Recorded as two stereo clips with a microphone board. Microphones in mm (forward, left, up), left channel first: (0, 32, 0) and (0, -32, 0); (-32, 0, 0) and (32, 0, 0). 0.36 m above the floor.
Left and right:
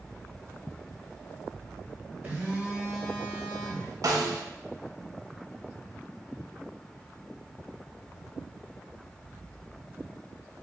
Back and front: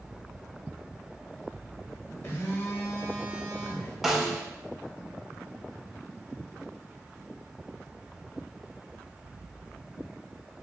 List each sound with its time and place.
2.2 s a phone buzzing: 150° right, 0.9 m
4.0 s a snare drum: 85° right, 0.5 m